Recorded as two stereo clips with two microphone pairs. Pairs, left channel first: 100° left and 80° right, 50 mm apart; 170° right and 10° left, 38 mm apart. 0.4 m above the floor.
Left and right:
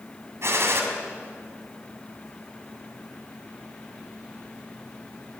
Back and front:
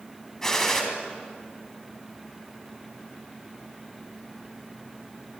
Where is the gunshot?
95° right, 3 m.